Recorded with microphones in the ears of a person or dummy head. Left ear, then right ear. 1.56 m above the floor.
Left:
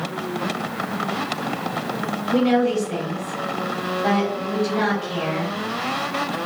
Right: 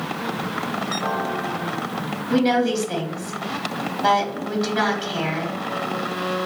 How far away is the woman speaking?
About 1.1 m.